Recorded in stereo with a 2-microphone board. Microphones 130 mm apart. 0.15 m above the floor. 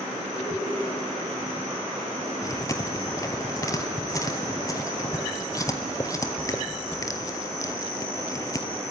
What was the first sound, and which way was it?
Laughter, 15° left (ahead or behind).